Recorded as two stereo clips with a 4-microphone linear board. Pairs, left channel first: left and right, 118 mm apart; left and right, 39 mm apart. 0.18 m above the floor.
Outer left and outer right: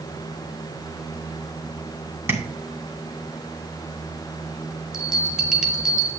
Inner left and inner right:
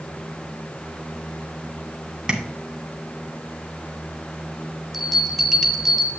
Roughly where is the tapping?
Centre.